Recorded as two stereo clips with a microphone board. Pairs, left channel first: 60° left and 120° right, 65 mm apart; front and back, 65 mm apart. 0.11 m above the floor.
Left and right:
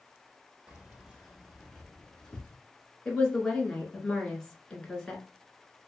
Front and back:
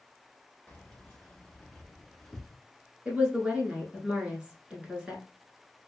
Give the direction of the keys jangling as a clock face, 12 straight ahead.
2 o'clock.